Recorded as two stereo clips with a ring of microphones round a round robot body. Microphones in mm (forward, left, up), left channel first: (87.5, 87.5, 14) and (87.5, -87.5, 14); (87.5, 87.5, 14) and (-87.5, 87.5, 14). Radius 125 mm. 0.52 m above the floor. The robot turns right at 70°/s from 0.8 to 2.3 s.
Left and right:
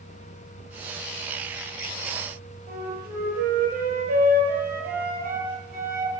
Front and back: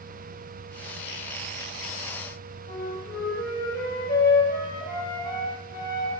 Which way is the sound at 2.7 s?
55° right.